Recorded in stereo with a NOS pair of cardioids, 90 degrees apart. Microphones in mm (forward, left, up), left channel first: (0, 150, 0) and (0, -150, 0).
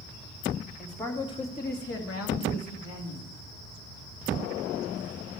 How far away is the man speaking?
About 1.7 m.